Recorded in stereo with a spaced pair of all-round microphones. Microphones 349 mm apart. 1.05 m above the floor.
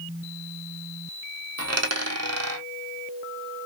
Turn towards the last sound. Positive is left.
turn(degrees=-45)  # may be behind; listen again after turning